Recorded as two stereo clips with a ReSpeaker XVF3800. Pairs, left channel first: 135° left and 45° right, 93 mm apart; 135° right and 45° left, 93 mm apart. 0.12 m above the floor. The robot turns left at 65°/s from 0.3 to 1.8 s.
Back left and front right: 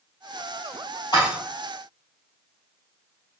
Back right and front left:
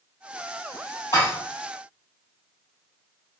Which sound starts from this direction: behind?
Dishes clattering, at 1.1 s.